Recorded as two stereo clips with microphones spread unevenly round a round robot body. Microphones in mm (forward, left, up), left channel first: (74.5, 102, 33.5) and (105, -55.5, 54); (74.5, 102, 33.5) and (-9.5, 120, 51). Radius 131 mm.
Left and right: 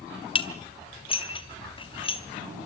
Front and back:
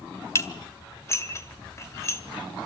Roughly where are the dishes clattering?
Ahead left.